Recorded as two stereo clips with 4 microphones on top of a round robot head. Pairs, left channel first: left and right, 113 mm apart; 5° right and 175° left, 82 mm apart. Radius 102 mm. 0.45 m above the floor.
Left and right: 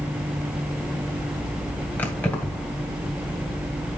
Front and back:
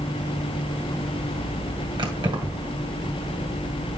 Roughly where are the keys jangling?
Behind.